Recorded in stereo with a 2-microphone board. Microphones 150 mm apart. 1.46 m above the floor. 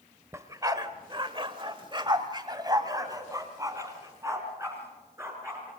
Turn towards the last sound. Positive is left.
turn(degrees=-15)  # may be behind; listen again after turning